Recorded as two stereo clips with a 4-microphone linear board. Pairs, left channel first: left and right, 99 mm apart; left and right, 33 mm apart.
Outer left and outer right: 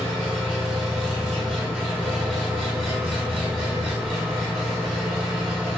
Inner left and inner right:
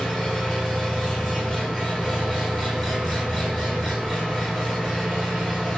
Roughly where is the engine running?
Centre.